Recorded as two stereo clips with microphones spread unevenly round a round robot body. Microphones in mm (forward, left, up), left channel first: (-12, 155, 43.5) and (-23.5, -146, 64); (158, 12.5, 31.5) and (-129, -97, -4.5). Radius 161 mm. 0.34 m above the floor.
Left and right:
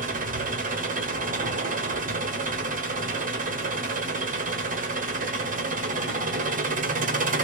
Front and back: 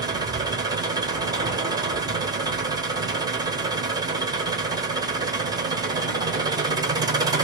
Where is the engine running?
120° right, 1.0 m.